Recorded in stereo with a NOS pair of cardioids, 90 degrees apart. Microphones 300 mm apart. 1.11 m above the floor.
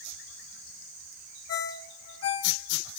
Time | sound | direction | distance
1.5 | a ringtone | 50° left | 1.3 m